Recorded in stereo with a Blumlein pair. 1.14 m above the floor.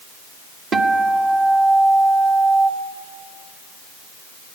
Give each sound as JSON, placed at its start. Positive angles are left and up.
{"t": 0.7, "sound": "a guitar", "azimuth_deg": -25, "distance_m": 1.8}